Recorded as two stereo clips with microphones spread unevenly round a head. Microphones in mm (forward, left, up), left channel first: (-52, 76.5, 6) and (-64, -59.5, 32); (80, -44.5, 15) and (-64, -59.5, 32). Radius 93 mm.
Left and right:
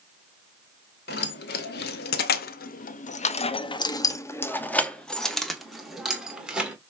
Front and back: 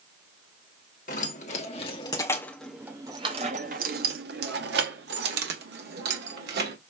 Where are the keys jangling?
55° left, 1.3 m; by 6.8 s 175° right, 2 m.